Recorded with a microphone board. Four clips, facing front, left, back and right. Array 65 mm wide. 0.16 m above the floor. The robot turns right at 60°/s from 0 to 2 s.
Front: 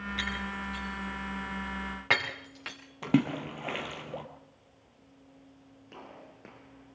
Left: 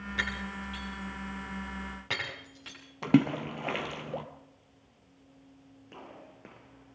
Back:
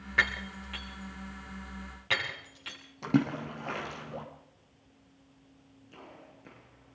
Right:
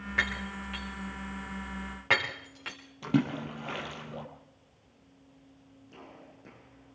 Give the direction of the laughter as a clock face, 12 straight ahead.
No laughter in this recording.